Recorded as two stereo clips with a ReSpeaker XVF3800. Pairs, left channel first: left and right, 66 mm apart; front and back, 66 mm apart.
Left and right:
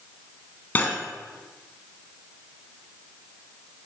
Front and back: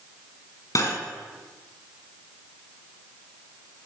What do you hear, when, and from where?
0.8 s cutlery clinking: 30° left, 1.5 m